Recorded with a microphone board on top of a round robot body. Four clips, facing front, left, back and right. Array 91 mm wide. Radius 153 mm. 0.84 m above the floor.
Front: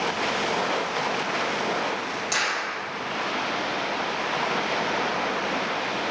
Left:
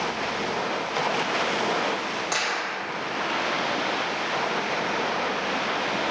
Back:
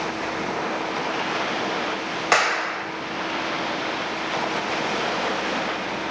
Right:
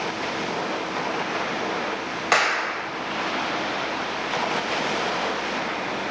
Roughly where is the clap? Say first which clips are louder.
Right 6 dB, back 10 dB; behind right.